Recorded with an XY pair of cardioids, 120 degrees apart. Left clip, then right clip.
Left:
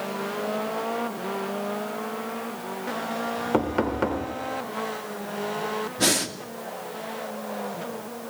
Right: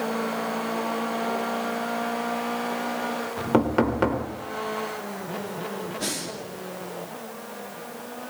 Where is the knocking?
15° right, 4 m.